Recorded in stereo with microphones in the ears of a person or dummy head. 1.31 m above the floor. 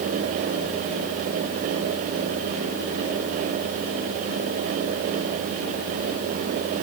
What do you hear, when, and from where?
Only background noise.